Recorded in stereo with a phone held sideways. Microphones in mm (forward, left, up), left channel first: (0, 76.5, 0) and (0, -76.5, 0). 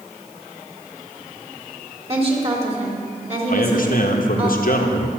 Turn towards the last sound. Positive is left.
turn(degrees=65)  # may be behind; listen again after turning